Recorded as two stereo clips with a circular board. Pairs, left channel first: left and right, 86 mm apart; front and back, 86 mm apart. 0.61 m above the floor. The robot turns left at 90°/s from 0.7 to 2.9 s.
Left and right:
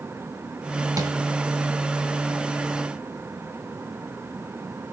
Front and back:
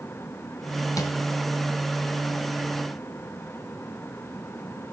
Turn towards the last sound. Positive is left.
turn(degrees=145)